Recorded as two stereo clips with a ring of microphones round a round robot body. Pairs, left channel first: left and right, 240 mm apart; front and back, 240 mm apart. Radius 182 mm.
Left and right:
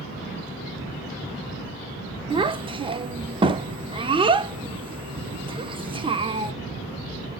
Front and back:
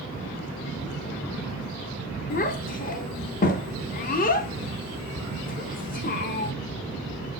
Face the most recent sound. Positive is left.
turn(degrees=-30)